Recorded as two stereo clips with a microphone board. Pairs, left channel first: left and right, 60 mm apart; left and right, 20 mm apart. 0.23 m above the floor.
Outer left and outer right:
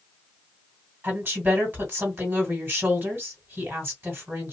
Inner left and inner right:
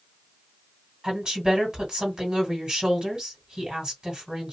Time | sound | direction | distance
1.0 | a woman speaking | 40° right (ahead or behind) | 2 m